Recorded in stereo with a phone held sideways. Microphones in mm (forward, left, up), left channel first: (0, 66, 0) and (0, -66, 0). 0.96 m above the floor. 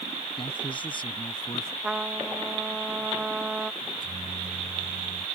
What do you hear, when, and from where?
0.4 s a man speaking: 40° left (ahead or behind)
1.8 s a trumpet: 5° right (ahead or behind)
3.8 s a microwave: 80° right